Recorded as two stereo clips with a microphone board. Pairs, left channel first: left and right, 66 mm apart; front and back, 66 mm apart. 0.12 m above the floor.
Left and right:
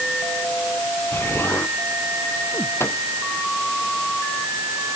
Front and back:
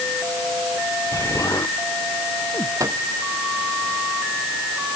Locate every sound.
1.1 s an explosion: 40° left
2.8 s a microwave: 145° left